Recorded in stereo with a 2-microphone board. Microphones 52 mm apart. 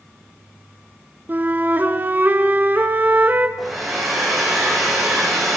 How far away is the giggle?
I don't hear a giggle.